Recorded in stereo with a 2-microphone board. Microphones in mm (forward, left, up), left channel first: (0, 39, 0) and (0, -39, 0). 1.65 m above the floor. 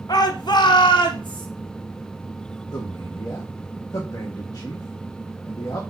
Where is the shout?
60° left (ahead or behind), 1.3 m; by 1.5 s 80° left, 1.3 m.